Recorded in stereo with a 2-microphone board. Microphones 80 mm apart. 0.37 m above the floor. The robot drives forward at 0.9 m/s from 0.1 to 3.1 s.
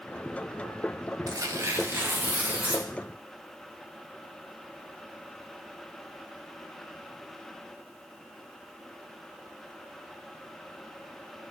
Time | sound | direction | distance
1.3 | tearing paper | 50° right (ahead or behind) | 0.7 m